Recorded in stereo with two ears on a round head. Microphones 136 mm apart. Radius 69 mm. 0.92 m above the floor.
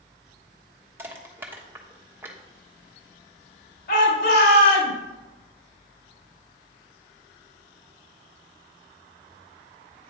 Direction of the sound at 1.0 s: 15° right (ahead or behind).